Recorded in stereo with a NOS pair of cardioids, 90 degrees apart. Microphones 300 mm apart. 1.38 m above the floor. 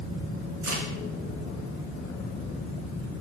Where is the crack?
70° right, 5 m.